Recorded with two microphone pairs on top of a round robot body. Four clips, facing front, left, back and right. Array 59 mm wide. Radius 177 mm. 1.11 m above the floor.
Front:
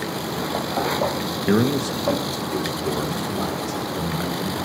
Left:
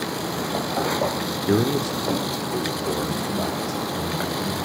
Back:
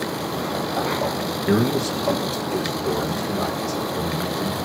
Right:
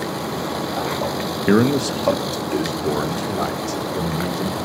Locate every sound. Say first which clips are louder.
1.5 s a man speaking: right 5 dB, even; 80° right, 1.9 m; by 4.6 s 90° right, 5.5 m